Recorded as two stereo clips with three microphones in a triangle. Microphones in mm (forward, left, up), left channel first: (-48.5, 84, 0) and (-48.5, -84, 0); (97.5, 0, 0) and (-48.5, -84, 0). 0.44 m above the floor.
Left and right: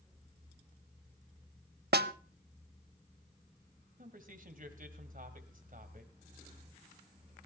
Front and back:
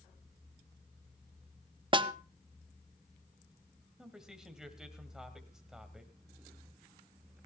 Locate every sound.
1.9 s a snare drum: 90° right, 0.5 m
4.0 s a man speaking: 65° right, 2 m